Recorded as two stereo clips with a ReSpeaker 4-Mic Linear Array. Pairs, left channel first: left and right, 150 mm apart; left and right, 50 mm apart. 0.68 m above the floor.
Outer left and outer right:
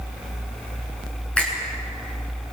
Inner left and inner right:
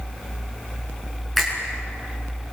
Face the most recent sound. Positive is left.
turn(degrees=5)  # may be behind; listen again after turning